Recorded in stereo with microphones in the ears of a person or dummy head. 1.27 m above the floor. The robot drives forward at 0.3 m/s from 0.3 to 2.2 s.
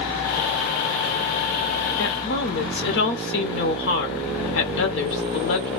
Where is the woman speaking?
55° left (ahead or behind), 0.8 m; by 5.7 s 50° left (ahead or behind), 0.8 m.